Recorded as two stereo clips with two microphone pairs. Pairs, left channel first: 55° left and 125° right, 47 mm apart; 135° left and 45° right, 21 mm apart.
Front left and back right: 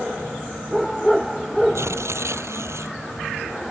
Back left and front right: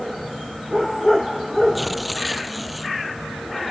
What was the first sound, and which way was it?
Tearing paper, 135° right.